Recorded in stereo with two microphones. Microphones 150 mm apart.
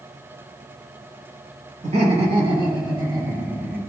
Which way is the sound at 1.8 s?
45° right (ahead or behind).